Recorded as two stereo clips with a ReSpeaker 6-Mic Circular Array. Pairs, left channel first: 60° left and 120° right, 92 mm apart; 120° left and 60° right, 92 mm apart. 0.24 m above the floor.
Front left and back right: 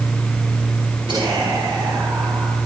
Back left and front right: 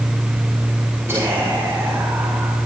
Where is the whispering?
120° right, 4 m.